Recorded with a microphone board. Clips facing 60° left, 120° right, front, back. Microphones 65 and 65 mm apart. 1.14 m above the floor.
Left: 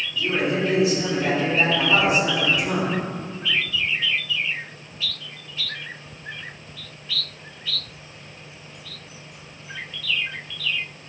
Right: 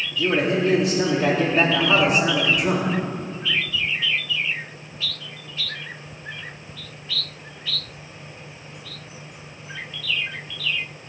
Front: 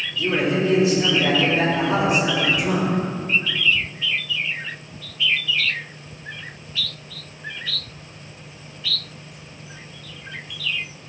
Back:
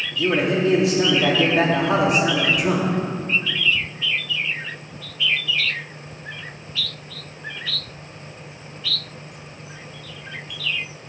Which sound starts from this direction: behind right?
A man speaking, at 0.1 s.